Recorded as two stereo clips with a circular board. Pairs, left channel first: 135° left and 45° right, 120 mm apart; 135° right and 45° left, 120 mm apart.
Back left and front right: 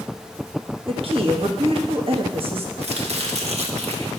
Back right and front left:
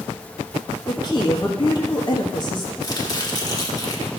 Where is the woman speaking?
85° right, 1.5 m.